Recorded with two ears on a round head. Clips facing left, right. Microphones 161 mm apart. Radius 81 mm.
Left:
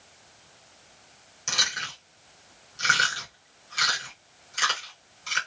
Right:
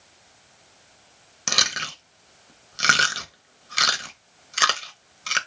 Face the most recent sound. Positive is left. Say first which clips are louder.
# right 5 dB
turn(degrees=-70)  # may be behind; listen again after turning